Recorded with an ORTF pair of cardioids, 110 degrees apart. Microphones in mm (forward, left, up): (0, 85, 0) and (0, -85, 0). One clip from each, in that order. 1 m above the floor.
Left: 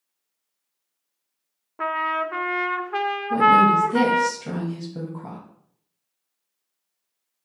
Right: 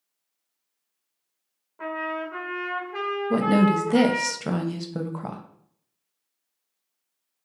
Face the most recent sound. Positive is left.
turn(degrees=-50)